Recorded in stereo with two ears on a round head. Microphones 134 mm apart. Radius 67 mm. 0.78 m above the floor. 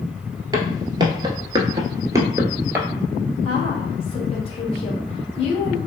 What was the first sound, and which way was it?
Footsteps, 25° right (ahead or behind).